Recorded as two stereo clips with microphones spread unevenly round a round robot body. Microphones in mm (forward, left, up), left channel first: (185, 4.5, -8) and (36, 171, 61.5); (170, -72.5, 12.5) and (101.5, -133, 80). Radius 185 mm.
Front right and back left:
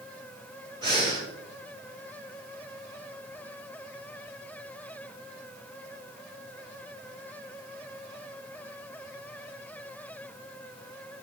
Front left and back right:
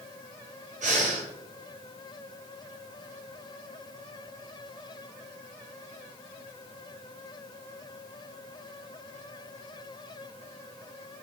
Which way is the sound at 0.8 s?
145° right.